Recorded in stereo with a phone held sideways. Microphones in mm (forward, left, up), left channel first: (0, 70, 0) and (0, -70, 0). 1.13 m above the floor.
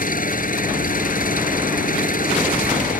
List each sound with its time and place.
0.0 s an engine running: 85° left